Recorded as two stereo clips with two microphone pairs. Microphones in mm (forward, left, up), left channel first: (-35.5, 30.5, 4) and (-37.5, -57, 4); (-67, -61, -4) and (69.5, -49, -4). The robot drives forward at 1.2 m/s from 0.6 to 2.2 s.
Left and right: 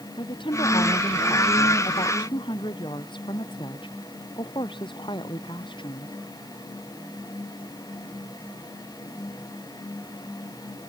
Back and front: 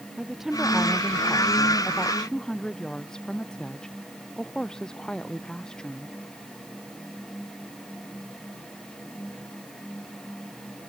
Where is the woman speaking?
90° left; by 6.2 s 100° left.